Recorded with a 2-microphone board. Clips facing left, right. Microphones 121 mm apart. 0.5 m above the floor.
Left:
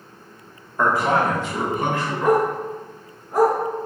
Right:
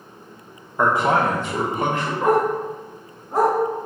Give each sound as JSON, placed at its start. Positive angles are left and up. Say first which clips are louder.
{"t": 0.8, "sound": "a man speaking", "louder": "right 1 dB", "side_deg": -10, "distance_m": 0.7}
{"t": 2.2, "sound": "a dog barking", "louder": "even", "side_deg": -25, "distance_m": 1.3}